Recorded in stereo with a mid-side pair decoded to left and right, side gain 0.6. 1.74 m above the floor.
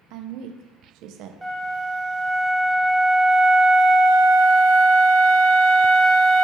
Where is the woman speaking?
65° right, 0.5 m.